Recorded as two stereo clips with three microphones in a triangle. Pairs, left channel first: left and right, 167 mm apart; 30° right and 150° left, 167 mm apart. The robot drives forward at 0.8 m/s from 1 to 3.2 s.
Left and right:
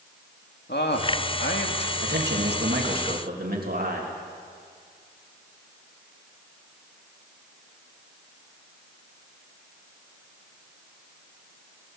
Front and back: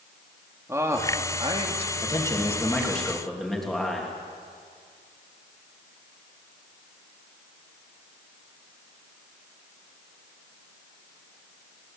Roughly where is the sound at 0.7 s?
Left.